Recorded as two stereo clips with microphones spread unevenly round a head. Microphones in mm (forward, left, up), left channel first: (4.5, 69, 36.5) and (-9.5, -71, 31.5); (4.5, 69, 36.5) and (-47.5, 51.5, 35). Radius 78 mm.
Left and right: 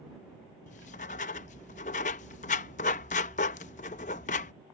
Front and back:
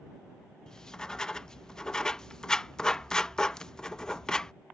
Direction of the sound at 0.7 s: 90° left.